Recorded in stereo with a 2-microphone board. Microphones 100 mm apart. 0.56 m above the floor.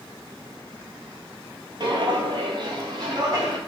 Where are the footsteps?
50° right (ahead or behind), 0.7 m; by 3.6 s 40° right (ahead or behind), 1.7 m.